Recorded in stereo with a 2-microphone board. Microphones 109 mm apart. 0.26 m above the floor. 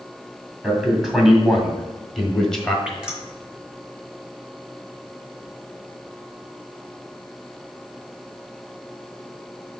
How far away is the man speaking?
About 2 m.